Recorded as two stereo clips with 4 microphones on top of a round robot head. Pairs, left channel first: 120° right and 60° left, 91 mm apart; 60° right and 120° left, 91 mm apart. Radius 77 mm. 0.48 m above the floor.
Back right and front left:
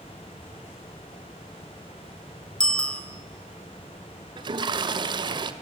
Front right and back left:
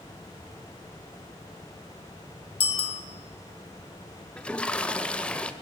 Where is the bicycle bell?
40° right, 2.5 m.